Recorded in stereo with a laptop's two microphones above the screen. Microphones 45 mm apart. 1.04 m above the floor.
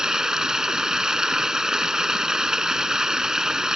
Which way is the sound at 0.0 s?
15° right (ahead or behind).